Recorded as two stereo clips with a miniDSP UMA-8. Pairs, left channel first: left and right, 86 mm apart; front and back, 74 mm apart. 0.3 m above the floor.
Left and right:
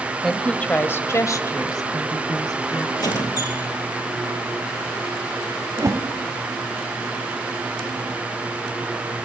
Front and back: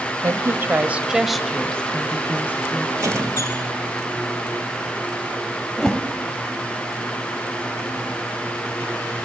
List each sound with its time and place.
0.2 s a woman speaking: 175° left, 1.6 m; by 2.9 s 55° left, 3 m
3.0 s a squeak: 130° left, 5 m
5.8 s a whoosh: 80° right, 1.1 m